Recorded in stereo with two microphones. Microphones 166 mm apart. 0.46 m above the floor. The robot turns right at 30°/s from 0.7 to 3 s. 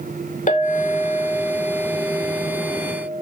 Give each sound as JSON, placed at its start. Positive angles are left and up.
{"t": 0.5, "sound": "a clink", "azimuth_deg": 105, "distance_m": 0.6}